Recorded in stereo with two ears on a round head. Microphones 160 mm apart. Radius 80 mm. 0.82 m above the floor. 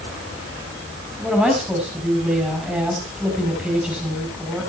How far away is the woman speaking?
About 5 m.